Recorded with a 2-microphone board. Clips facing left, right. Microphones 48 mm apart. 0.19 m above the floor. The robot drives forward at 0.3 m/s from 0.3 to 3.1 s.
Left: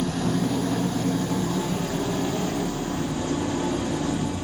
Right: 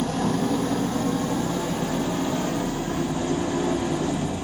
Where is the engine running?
45° right (ahead or behind), 1.9 m; by 4.4 s 30° right (ahead or behind), 2.5 m.